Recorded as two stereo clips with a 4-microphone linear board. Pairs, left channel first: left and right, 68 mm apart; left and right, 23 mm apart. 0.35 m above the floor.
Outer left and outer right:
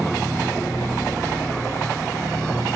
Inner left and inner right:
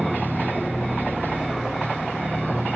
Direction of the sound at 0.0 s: 5° left (ahead or behind).